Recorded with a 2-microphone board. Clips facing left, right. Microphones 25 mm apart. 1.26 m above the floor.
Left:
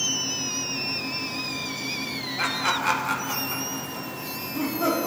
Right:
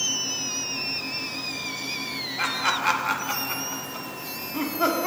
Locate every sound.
2.4 s laughter: 5° right (ahead or behind), 2 m; by 5.1 s 45° right (ahead or behind), 3 m